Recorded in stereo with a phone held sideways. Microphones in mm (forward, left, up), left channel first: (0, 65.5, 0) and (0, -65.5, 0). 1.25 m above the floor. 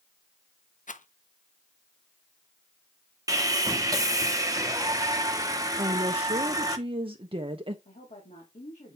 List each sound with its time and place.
0.9 s a rattle: 75° left (ahead or behind), 0.7 m
3.3 s sawing: 25° right (ahead or behind), 1.0 m
5.8 s a woman speaking: 45° right (ahead or behind), 0.7 m
7.8 s a woman speaking: 65° left (ahead or behind), 2.5 m